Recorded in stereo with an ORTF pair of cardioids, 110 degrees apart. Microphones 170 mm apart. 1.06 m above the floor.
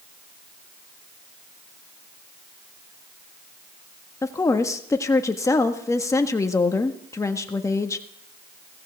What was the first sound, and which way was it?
A woman speaking, 20° left.